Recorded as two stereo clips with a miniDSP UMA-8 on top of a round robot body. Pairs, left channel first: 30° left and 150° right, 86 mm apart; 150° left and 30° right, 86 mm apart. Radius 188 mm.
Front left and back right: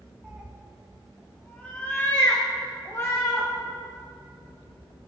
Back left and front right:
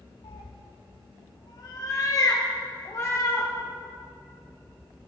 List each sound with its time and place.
0.2 s a cat meowing: 140° left, 0.8 m; by 3.5 s 90° left, 2 m